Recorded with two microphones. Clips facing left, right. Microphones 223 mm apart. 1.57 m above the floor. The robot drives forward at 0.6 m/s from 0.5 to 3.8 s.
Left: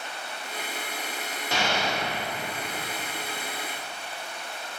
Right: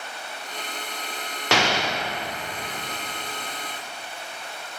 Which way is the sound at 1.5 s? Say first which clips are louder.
Right 4 dB; 80° right.